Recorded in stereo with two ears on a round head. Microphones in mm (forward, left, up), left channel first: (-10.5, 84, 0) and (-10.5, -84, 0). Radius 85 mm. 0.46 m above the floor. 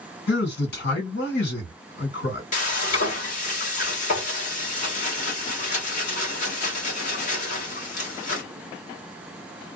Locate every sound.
0.3 s a man speaking: 60° left (ahead or behind), 2 m
2.5 s frying: 40° left (ahead or behind), 1.3 m